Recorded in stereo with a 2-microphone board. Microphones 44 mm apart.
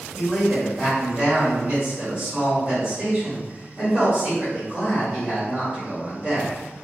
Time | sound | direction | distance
0.1 | a man speaking | 35° right (ahead or behind) | 1.7 m